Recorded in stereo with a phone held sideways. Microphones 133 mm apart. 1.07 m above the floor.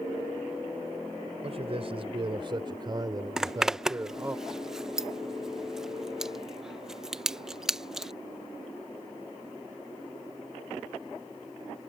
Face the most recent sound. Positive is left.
turn(degrees=-5)  # may be behind; listen again after turning